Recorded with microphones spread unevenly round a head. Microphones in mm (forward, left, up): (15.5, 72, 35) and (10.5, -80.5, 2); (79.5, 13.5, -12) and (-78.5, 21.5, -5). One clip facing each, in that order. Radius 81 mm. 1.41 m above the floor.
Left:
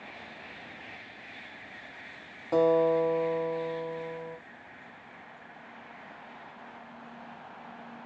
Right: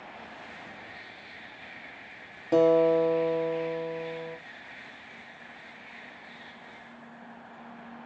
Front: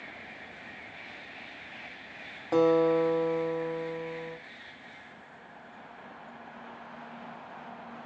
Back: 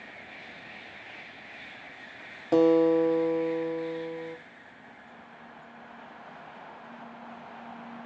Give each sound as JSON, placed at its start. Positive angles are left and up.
{"t": 2.5, "sound": "a guitar", "azimuth_deg": -160, "distance_m": 0.8}